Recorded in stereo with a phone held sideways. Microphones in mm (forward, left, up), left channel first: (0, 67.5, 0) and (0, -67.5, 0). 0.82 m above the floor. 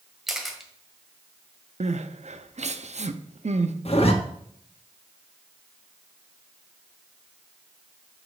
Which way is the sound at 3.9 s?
50° left (ahead or behind).